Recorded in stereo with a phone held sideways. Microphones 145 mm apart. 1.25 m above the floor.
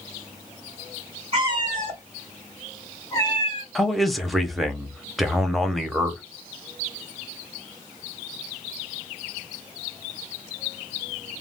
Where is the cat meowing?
35° right (ahead or behind), 1.1 m; by 3.6 s 40° left (ahead or behind), 1.2 m.